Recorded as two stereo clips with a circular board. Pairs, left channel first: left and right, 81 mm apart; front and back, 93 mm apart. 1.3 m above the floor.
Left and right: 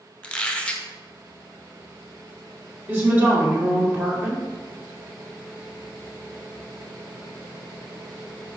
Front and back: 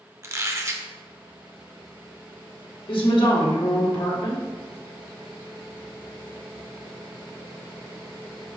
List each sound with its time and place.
0.2 s a squeak: 155° left, 0.5 m
2.9 s a woman speaking: 30° right, 1.4 m